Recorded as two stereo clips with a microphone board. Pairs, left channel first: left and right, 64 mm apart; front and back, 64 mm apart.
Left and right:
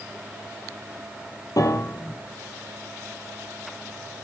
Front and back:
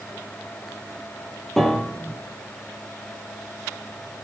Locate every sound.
1.6 s a piano: 85° left, 1.3 m